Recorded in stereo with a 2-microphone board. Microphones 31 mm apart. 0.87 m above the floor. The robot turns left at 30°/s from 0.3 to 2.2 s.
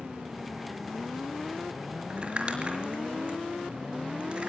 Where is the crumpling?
30° right (ahead or behind), 4.5 m; by 4.5 s 35° right (ahead or behind), 4.5 m.